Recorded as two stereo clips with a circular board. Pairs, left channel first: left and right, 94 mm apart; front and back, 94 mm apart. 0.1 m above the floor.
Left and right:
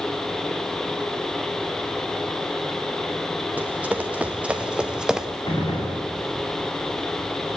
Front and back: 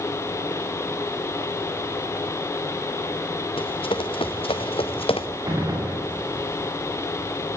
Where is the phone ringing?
I don't hear a phone ringing.